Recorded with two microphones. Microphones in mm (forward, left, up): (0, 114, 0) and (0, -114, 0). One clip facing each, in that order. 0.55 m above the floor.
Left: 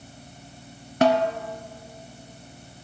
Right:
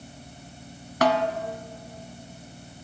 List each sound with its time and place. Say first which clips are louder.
1.0 s a snare drum: left 3 dB; 25° left (ahead or behind), 0.9 m